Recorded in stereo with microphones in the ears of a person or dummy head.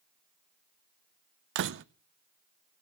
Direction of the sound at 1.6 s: 60° right (ahead or behind).